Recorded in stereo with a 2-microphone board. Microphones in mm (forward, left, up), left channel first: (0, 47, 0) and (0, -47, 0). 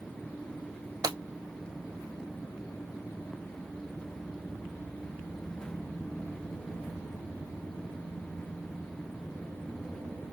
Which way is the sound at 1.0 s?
50° right (ahead or behind).